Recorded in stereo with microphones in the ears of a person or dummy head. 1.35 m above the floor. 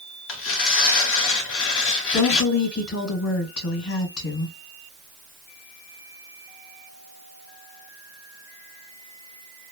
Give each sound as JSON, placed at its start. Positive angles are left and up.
{"t": 0.3, "sound": "tearing paper", "side_deg": 65, "distance_m": 1.1}
{"t": 2.1, "sound": "a woman speaking", "side_deg": 75, "distance_m": 1.8}